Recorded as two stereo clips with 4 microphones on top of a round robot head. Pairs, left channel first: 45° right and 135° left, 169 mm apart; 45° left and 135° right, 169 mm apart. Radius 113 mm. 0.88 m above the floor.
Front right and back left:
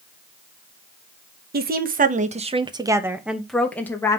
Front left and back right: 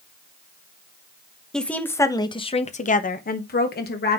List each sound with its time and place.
1.5 s a woman speaking: 130° left, 1.3 m; by 4.2 s 30° left, 1.6 m